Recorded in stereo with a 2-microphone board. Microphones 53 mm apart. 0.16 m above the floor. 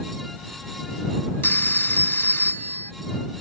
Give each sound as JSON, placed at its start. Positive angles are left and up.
{"t": 1.4, "sound": "a phone ringing", "side_deg": 40}